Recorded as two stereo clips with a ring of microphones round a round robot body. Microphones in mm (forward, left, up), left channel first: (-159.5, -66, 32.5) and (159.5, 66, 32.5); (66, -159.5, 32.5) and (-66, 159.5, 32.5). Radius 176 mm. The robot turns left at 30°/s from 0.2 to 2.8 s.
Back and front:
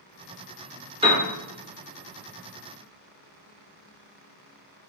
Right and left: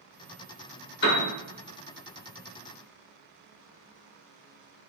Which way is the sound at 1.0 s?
40° right.